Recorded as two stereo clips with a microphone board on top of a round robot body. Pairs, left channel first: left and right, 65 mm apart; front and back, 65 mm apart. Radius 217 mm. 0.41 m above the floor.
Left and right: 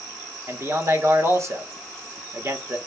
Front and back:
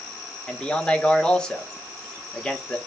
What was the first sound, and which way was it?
A man speaking, 75° right.